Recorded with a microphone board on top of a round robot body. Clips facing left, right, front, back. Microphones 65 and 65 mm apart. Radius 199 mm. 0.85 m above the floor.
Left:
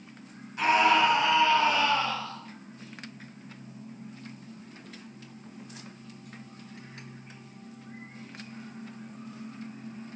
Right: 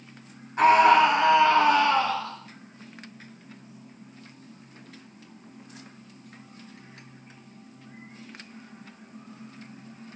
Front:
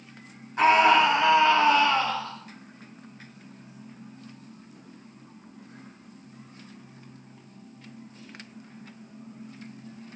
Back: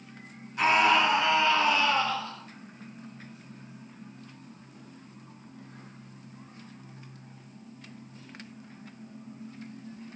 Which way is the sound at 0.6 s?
50° right.